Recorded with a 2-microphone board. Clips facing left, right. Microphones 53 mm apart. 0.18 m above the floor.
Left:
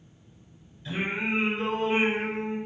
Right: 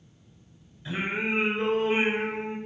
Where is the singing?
25° right (ahead or behind), 1.6 m.